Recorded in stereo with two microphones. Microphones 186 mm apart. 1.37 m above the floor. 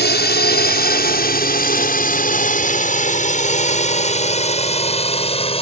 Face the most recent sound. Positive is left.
turn(degrees=30)  # may be behind; listen again after turning